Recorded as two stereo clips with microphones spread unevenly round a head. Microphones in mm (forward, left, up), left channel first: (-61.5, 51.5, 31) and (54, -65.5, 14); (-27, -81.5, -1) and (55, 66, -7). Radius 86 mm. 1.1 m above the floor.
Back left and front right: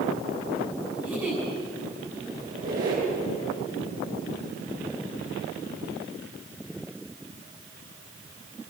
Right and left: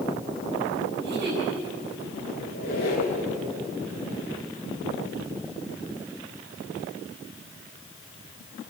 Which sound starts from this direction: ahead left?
A giggle, at 1.0 s.